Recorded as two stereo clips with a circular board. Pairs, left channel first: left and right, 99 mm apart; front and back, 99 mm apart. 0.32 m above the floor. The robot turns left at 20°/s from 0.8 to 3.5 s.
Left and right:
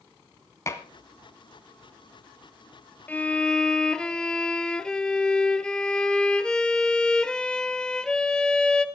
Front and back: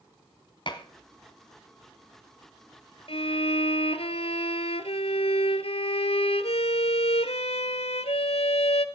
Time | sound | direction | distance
0.7 | dishes clattering | 30° left | 1.6 m
3.1 | a violin | 20° left | 0.9 m